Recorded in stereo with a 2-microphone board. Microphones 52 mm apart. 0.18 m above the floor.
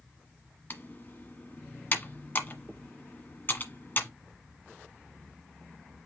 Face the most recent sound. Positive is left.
turn(degrees=40)  # may be behind; listen again after turning